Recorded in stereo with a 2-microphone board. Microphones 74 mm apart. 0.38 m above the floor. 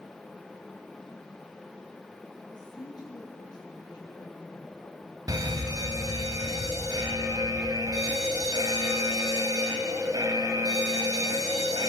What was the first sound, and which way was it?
A woman speaking, 70° left (ahead or behind).